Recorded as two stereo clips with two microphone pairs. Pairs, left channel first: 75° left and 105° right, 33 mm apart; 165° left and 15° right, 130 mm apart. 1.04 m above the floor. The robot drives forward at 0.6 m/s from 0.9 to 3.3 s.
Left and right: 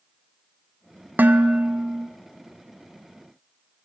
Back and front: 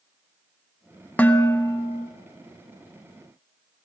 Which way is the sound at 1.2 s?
115° right.